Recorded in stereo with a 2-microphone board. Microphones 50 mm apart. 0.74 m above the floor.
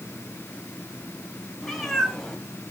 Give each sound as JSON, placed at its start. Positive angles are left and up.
{"t": 1.6, "sound": "a cat meowing", "side_deg": 0, "distance_m": 2.0}